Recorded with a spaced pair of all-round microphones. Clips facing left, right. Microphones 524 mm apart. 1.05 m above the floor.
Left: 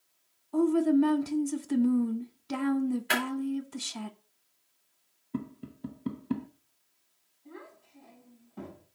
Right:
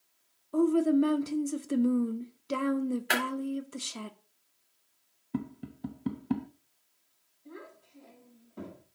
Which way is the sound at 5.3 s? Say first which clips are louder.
Right 1 dB; 10° right (ahead or behind).